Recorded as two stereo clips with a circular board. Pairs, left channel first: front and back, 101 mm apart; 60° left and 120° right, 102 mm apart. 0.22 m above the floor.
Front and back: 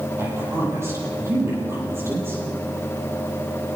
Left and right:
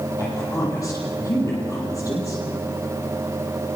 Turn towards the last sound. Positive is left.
turn(degrees=115)